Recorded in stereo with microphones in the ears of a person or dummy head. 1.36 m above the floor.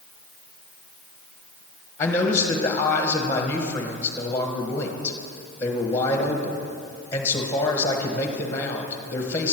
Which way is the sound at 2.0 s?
20° left (ahead or behind).